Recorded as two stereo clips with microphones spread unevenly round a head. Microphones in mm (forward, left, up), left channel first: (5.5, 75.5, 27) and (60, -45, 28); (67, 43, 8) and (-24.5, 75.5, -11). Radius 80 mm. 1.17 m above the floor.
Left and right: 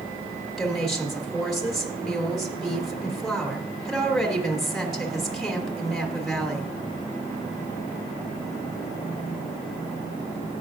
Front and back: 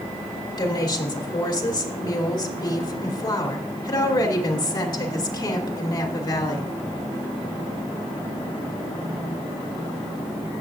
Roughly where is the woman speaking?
Ahead left.